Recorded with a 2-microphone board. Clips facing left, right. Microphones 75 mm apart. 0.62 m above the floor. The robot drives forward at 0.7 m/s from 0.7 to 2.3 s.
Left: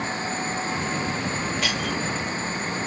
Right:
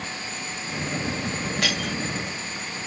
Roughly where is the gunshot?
No gunshot in this recording.